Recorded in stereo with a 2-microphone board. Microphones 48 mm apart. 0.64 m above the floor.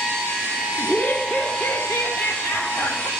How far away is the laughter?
About 1.1 m.